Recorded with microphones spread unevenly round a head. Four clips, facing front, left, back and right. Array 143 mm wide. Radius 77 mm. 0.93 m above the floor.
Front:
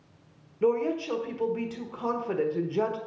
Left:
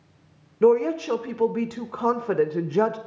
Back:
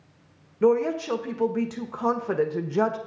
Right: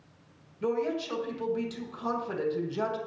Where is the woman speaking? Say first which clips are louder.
Left 11 dB, back 4 dB; 115° left, 1.2 m.